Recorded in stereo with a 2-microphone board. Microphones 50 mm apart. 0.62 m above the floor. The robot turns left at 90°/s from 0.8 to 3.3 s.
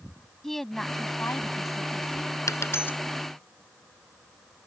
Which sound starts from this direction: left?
A dropped coin, at 2.5 s.